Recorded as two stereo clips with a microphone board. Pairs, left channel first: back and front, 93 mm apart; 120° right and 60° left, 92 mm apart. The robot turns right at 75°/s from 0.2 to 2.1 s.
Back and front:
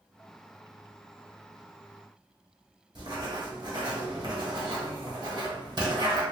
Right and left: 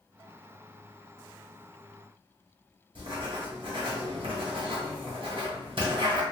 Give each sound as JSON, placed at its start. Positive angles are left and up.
{"t": 3.0, "sound": "writing", "azimuth_deg": 35, "distance_m": 1.3}